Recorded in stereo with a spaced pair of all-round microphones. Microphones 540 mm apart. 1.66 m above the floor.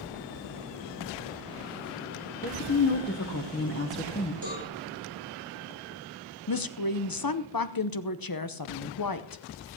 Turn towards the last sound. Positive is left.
turn(degrees=40)  # may be behind; listen again after turning